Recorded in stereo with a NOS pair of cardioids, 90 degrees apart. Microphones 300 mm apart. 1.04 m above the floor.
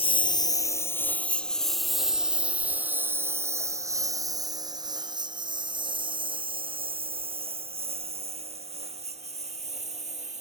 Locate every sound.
0.0 s a lawn mower: 20° left; by 10.4 s 20° right